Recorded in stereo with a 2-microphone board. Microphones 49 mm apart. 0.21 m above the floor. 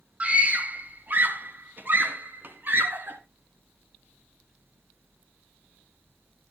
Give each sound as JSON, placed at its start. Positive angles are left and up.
{"t": 0.2, "sound": "a scream", "side_deg": -25, "distance_m": 1.3}